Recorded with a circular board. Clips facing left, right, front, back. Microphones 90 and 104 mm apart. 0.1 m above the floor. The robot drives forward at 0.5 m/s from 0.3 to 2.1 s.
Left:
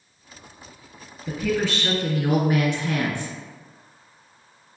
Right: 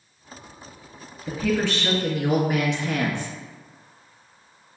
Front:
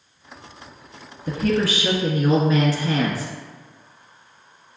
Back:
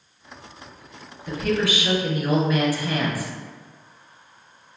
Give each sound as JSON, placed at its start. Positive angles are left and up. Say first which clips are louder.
{"t": 1.3, "sound": "a woman speaking", "louder": "even, front 2 dB", "azimuth_deg": -5, "distance_m": 1.4}